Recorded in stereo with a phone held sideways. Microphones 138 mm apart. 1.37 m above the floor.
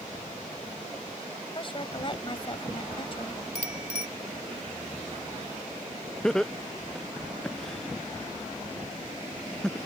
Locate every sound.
1.6 s a woman speaking: 35° left (ahead or behind)
3.5 s a bicycle bell: 55° left (ahead or behind)
6.2 s laughter: 5° left (ahead or behind)